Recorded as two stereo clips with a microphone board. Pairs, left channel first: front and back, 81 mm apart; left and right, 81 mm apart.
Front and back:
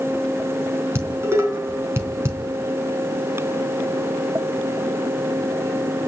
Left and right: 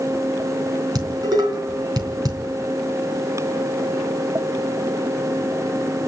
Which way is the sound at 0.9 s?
120° right.